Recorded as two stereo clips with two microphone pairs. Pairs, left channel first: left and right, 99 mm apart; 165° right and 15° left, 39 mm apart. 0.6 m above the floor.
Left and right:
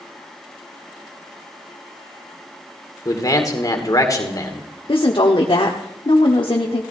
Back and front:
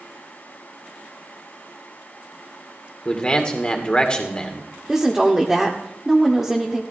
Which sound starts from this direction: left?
A woman speaking, at 4.9 s.